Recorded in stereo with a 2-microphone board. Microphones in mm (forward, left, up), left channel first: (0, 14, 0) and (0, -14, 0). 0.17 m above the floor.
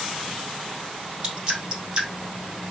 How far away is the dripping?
About 3 m.